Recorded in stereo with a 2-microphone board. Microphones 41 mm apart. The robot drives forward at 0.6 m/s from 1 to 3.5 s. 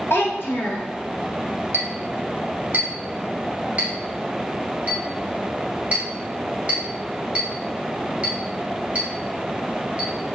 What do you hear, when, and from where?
0.1 s a child speaking: 65° left (ahead or behind), 1.1 m
1.7 s a clink: 65° right (ahead or behind), 1.1 m; by 10.1 s 35° right (ahead or behind), 1.7 m